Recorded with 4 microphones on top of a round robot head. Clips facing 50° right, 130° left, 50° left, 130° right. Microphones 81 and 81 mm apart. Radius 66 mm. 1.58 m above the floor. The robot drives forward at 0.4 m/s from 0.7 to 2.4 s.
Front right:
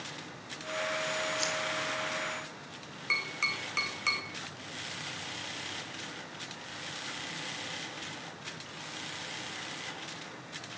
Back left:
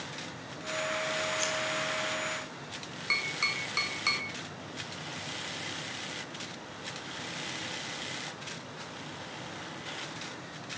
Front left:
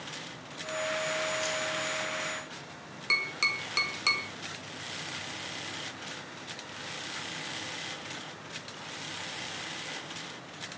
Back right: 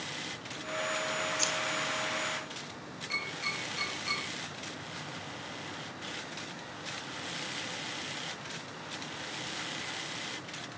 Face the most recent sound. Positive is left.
turn(degrees=45)